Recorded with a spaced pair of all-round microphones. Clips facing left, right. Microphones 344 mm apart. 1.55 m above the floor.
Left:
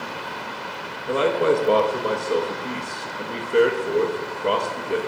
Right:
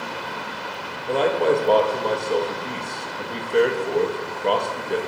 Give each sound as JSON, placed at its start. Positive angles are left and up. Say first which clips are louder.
{"t": 1.1, "sound": "a man speaking", "louder": "even", "side_deg": 10, "distance_m": 0.5}